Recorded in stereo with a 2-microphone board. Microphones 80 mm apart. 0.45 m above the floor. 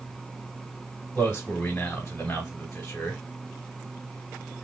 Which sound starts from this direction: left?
A man speaking, at 1.1 s.